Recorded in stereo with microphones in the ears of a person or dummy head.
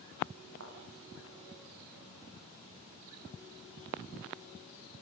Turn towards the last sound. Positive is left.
turn(degrees=-75)  # may be behind; listen again after turning